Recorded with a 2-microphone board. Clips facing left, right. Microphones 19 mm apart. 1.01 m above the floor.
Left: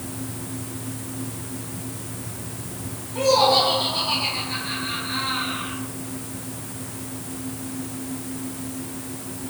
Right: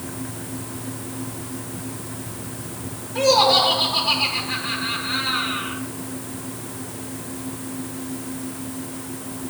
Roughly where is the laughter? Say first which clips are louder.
Right 2 dB; right.